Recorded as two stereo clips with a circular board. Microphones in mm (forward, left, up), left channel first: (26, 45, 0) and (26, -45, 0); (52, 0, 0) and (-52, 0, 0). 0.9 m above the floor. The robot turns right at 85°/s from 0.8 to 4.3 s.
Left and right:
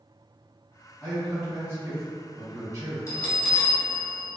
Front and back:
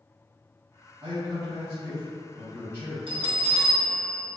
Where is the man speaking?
165° left, 1.3 m; by 3.0 s 30° right, 1.3 m.